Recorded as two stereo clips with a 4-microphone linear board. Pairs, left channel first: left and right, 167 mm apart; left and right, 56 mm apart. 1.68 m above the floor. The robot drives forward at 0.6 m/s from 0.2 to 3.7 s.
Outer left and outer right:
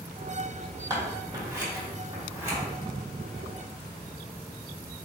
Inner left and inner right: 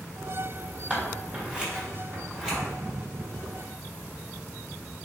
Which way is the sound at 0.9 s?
25° right (ahead or behind).